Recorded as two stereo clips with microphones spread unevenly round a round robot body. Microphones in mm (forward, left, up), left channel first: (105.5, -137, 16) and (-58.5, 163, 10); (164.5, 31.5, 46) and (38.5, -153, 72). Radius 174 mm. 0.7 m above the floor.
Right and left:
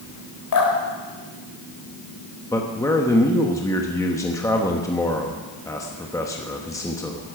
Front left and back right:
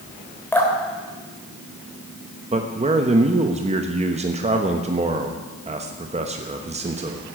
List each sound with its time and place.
0.5 s dripping: 25° right, 4 m
2.5 s a man speaking: 130° right, 1.1 m